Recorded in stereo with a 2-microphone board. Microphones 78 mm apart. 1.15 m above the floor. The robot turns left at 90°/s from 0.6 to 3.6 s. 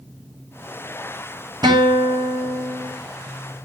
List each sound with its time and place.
1.6 s a guitar: 65° right, 1.9 m; by 2.9 s 175° left, 1.9 m